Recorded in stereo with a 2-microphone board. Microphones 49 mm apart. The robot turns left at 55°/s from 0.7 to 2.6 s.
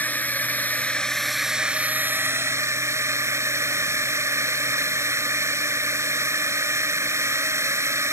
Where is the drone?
35° left; by 8.1 s 70° right.